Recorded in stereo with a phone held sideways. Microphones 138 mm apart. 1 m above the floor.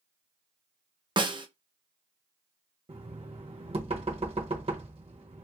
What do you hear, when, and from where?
1.2 s a snare drum: 35° right (ahead or behind), 0.5 m
2.9 s knocking: 50° right (ahead or behind), 0.9 m